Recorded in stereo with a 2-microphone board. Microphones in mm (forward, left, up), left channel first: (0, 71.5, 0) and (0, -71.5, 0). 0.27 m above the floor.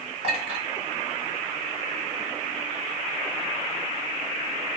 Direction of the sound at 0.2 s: 45° right (ahead or behind).